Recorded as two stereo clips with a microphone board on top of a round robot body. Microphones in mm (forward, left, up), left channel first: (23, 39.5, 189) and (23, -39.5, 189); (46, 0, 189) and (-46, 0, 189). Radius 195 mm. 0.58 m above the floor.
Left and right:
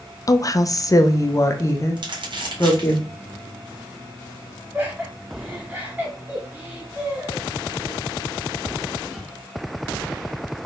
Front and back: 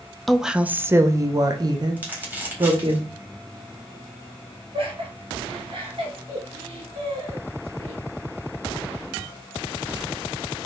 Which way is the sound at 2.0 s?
105° right.